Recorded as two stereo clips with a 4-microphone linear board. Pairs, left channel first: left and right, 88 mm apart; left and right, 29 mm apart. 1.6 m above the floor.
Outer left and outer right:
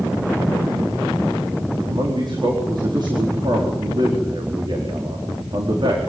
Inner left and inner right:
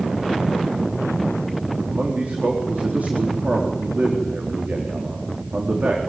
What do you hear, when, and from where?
1.9 s a man speaking: 60° right (ahead or behind), 4 m